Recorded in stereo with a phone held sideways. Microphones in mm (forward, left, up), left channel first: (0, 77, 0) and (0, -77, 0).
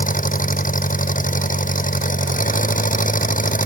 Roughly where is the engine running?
Left.